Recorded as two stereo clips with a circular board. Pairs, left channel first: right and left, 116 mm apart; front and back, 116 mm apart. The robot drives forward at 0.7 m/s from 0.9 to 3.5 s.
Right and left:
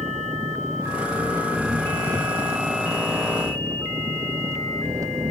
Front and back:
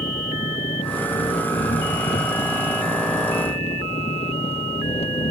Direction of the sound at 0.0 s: 25° left.